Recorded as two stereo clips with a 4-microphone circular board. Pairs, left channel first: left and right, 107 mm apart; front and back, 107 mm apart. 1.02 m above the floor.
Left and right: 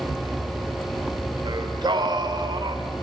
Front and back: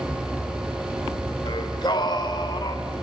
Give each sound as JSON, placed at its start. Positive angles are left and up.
{"t": 1.4, "sound": "singing", "azimuth_deg": -45, "distance_m": 2.0}